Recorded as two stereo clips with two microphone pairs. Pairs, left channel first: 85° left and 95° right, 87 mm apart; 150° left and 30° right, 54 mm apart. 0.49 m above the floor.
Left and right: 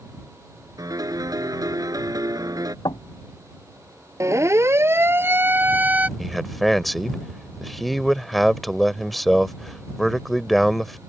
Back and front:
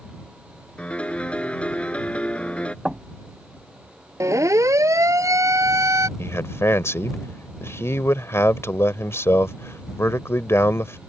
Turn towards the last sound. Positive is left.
turn(degrees=175)